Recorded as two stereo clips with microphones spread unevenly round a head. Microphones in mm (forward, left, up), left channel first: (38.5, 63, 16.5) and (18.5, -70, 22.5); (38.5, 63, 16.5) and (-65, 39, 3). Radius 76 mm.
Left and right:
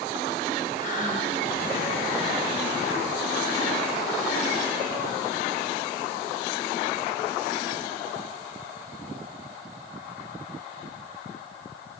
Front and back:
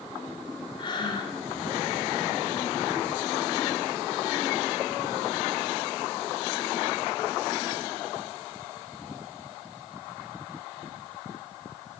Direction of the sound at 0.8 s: 55° left.